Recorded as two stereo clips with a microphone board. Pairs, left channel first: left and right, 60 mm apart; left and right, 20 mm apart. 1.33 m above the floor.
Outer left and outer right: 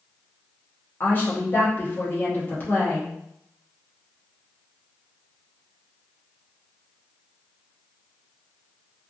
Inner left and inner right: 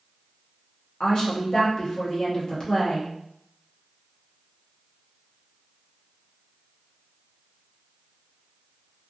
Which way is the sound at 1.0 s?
30° left (ahead or behind).